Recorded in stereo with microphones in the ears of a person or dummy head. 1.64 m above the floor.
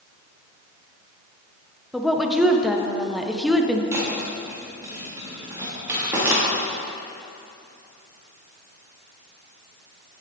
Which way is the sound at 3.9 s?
10° right (ahead or behind).